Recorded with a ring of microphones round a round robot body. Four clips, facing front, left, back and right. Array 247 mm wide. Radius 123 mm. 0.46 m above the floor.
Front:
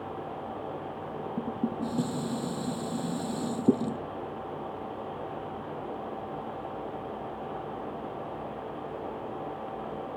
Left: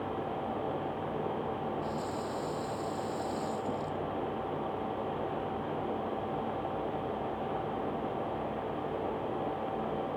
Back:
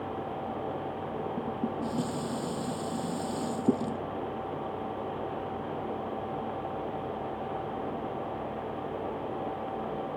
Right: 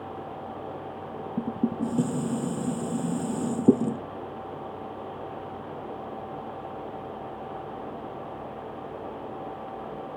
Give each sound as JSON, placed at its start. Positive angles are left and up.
{"t": 1.4, "sound": "dishes clattering", "azimuth_deg": -75}